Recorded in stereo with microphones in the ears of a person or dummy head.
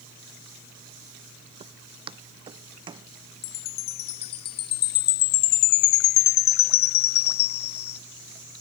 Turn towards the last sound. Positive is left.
turn(degrees=40)  # may be behind; listen again after turning